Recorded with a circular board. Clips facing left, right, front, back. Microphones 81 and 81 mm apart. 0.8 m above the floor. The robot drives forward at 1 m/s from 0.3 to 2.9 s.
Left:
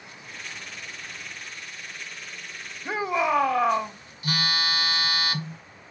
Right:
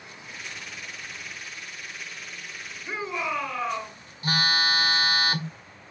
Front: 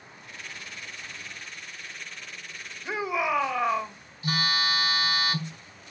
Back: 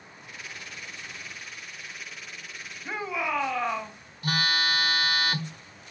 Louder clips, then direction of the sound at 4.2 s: Right 3 dB, back 1 dB; 145° right.